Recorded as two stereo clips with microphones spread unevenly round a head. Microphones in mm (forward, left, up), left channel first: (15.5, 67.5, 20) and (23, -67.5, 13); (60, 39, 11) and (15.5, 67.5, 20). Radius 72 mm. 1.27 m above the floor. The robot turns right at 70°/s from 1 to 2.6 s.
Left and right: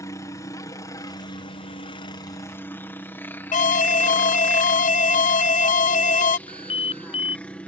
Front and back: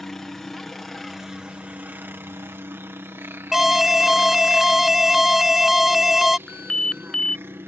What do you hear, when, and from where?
0.0 s a helicopter: 45° left; by 7.7 s 170° left
3.5 s an alarm: 65° left
6.5 s an alarm: 45° left